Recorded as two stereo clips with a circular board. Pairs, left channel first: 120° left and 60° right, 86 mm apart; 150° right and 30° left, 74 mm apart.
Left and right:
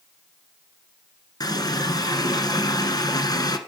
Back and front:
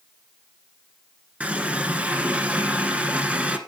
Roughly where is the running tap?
Left.